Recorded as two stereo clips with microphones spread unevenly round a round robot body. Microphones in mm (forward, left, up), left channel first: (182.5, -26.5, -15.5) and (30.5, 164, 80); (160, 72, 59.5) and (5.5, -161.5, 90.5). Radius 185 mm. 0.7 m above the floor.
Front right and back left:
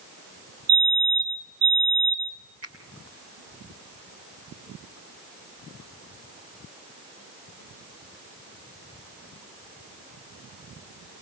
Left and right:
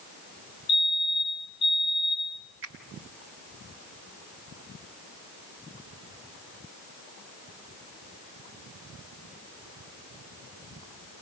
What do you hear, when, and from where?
0.7 s a fire alarm: 110° left, 5 m
2.6 s a finger snap: 175° right, 2.5 m